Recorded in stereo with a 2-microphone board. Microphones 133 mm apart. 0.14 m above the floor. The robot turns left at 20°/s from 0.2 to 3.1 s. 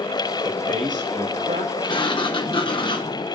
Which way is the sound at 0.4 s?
75° right (ahead or behind).